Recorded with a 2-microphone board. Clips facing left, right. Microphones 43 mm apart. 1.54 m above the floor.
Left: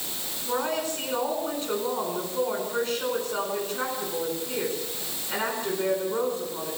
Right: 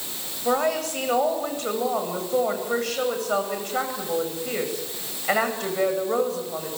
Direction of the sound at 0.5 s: 90° right.